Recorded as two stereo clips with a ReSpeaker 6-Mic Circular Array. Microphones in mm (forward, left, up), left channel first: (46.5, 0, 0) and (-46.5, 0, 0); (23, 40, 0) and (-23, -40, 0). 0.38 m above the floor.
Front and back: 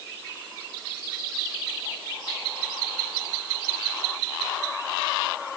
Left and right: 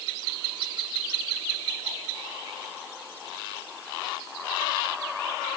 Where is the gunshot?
I don't hear a gunshot.